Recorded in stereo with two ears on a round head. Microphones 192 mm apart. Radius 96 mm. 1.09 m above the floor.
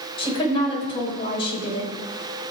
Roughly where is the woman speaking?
Left.